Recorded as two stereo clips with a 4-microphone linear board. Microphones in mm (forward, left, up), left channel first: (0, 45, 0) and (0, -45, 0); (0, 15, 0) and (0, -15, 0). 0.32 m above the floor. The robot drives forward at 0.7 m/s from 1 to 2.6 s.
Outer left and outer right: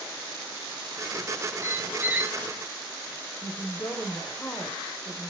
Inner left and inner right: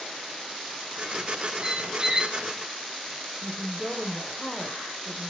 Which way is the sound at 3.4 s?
20° left (ahead or behind).